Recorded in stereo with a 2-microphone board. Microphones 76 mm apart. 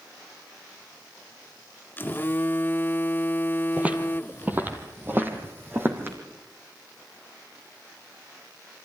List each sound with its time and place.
2.0 s a phone buzzing: 30° left (ahead or behind), 0.5 m
3.8 s footsteps: 15° right (ahead or behind), 1.8 m; by 6.2 s 30° right (ahead or behind), 3.5 m